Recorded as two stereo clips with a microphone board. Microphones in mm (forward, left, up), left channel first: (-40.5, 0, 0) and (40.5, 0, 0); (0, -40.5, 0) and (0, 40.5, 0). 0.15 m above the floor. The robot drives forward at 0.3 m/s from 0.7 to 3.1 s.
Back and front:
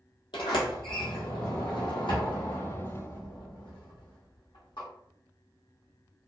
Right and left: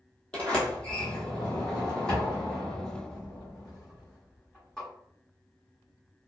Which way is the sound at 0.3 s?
165° right.